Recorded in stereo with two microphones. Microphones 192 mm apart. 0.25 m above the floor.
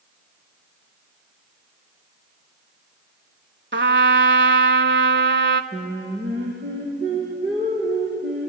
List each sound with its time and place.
3.7 s a trumpet: 75° right (ahead or behind), 0.8 m
5.7 s singing: 65° right (ahead or behind), 7 m